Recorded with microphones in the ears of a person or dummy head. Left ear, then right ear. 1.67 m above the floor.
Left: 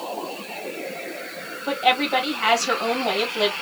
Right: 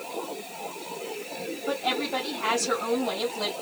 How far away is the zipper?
No zipper in this recording.